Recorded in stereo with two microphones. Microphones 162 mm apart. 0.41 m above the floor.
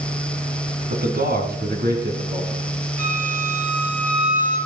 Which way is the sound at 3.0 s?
55° left (ahead or behind).